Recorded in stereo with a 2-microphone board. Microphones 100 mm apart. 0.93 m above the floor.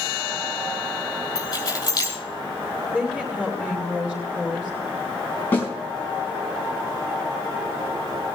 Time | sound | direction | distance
1.4 | keys jangling | 40° left (ahead or behind) | 4.5 m
2.9 | a woman speaking | 10° right (ahead or behind) | 2.5 m
5.5 | a snare drum | 20° left (ahead or behind) | 5 m